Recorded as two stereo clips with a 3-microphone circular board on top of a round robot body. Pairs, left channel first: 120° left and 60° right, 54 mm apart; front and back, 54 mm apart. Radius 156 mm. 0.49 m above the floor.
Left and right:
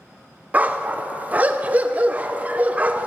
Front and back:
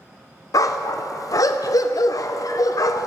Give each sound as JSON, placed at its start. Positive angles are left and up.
{"t": 0.5, "sound": "a dog barking", "azimuth_deg": 5, "distance_m": 0.7}